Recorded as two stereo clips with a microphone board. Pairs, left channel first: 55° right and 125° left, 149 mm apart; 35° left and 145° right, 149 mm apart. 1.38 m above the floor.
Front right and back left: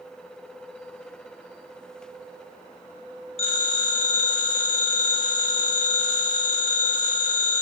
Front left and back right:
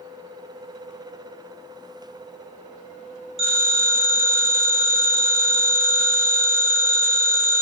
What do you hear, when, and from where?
3.4 s a phone ringing: 100° right, 1.2 m